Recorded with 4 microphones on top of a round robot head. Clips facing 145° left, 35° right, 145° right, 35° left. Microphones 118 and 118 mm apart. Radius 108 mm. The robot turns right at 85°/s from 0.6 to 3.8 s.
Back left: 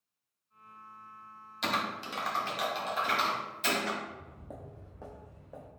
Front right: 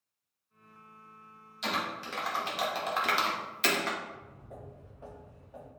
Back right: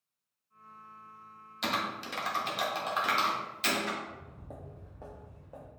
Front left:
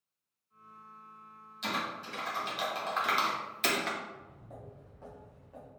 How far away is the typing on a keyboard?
About 1.0 m.